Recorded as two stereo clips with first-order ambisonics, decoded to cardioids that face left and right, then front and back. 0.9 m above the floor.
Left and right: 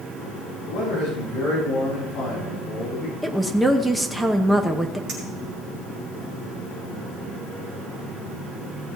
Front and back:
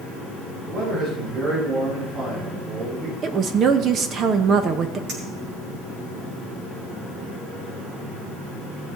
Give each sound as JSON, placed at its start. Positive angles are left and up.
{"t": 0.7, "sound": "a man speaking", "azimuth_deg": 130, "distance_m": 6.5}
{"t": 3.2, "sound": "a woman speaking", "azimuth_deg": -175, "distance_m": 0.9}
{"t": 5.1, "sound": "a clink", "azimuth_deg": -140, "distance_m": 5.5}